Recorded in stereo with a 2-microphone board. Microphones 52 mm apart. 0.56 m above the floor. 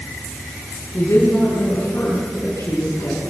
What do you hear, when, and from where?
0.9 s a woman speaking: 65° left (ahead or behind), 7 m; by 3.2 s 60° left (ahead or behind), 8 m